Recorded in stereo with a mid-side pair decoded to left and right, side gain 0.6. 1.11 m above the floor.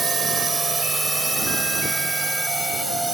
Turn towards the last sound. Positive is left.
turn(degrees=-10)